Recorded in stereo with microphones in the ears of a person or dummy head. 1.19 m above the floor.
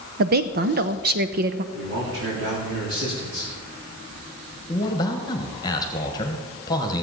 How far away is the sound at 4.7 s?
About 1.2 m.